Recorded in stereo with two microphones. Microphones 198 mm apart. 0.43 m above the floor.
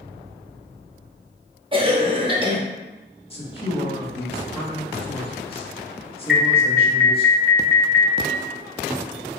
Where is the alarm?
Centre (ahead or behind), 0.6 m.